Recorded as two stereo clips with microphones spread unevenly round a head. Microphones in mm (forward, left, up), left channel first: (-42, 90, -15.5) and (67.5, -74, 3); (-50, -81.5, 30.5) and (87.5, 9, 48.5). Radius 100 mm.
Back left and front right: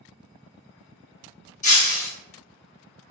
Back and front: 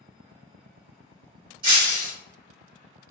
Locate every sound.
1.6 s breaking glass: 80° left, 1.4 m